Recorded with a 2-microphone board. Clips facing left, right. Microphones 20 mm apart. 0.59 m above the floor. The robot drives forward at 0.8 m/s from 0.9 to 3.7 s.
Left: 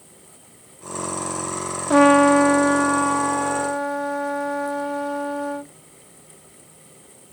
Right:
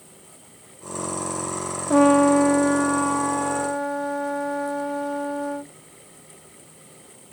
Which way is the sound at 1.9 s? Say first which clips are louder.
Left 2 dB; 35° left (ahead or behind).